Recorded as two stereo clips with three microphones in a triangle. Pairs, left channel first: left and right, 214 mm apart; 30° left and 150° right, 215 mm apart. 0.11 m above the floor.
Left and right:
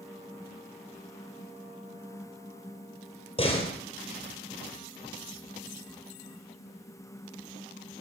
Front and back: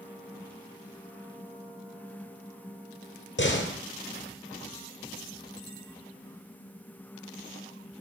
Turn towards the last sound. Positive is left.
turn(degrees=30)